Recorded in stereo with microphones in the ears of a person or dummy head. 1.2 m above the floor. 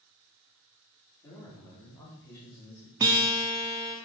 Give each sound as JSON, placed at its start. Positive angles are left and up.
{"t": 1.2, "sound": "a man speaking", "side_deg": 10, "distance_m": 3.5}
{"t": 3.0, "sound": "a guitar", "side_deg": -15, "distance_m": 0.7}